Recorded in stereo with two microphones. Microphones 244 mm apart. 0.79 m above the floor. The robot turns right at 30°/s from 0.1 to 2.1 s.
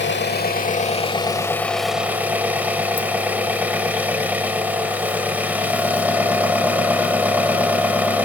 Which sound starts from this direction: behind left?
An engine running, at 0.0 s.